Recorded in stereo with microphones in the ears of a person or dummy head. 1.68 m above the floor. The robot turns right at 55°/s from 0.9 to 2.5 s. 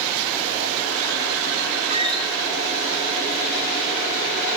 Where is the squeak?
35° right (ahead or behind), 1.0 m; by 2.3 s 15° right (ahead or behind), 1.0 m.